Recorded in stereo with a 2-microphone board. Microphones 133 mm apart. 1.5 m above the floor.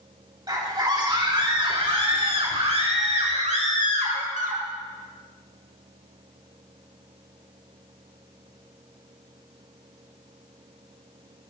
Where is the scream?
30° right (ahead or behind), 3.5 m; by 4.6 s 75° right (ahead or behind), 2.5 m.